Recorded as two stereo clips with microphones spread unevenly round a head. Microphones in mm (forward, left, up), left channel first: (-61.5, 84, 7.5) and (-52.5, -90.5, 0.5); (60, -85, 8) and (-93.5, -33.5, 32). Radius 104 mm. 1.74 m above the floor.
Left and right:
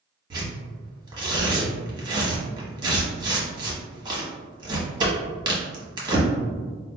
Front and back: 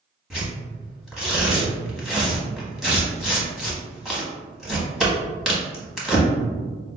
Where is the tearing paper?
130° right, 1.2 m.